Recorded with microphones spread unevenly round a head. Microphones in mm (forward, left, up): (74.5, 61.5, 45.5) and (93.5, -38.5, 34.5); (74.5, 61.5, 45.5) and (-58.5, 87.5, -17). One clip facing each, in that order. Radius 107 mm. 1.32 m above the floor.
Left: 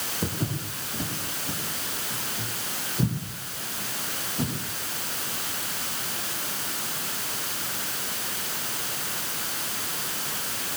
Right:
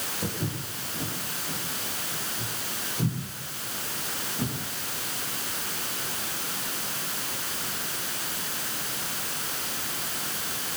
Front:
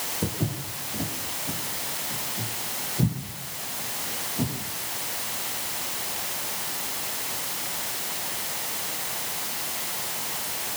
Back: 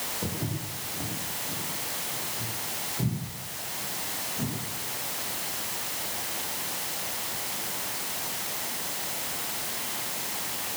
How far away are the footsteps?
About 7 m.